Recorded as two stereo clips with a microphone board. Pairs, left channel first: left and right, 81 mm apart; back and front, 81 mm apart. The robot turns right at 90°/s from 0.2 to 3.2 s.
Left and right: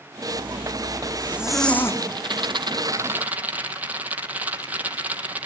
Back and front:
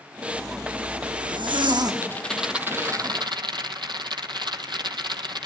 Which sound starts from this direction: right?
A zipper, at 0.3 s.